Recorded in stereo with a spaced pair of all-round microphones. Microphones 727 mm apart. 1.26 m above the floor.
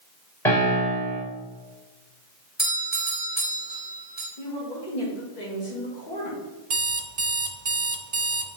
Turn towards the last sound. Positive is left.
turn(degrees=-60)  # may be behind; listen again after turning